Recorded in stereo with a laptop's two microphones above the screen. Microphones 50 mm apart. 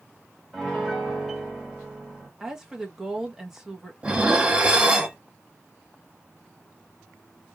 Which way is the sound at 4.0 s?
20° right (ahead or behind).